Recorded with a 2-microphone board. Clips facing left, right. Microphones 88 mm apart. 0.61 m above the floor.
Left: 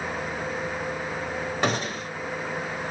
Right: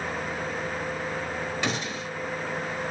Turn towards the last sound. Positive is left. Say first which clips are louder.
# left 4 dB
turn(degrees=45)  # may be behind; listen again after turning